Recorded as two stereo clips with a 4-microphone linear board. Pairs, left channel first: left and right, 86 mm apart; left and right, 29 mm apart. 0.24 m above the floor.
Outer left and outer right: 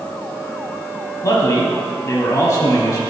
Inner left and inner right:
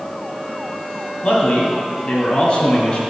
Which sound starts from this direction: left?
A man speaking, at 1.2 s.